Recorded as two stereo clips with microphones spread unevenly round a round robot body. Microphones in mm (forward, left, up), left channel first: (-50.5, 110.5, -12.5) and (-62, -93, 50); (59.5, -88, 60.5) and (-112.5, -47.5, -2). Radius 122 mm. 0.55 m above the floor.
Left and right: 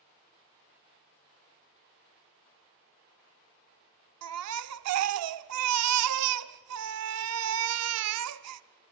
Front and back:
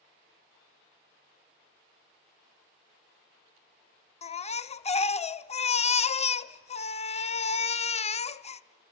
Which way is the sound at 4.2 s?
80° right.